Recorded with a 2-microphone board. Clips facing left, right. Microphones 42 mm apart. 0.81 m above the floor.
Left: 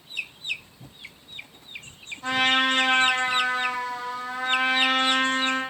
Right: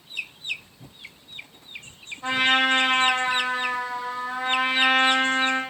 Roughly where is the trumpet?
Centre.